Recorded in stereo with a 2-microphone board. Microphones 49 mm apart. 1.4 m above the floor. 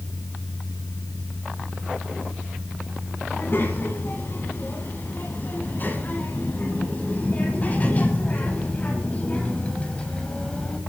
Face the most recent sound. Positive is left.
turn(degrees=20)  # may be behind; listen again after turning